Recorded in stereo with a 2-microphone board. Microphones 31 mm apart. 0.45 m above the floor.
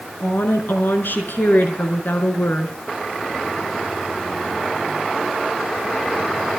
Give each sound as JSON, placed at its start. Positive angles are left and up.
{"t": 0.2, "sound": "a woman speaking", "side_deg": 80, "distance_m": 6.0}